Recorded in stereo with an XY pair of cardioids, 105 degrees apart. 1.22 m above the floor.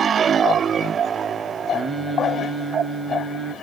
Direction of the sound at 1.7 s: 30° right.